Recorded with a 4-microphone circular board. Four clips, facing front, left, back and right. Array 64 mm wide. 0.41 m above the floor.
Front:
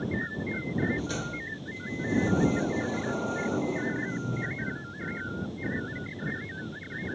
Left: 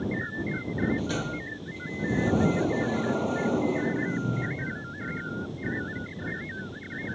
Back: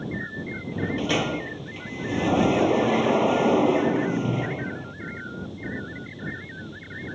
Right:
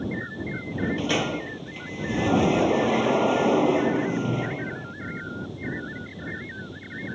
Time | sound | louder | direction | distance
0.7 | a sliding door | right 4 dB, back 6 dB | 140° right | ?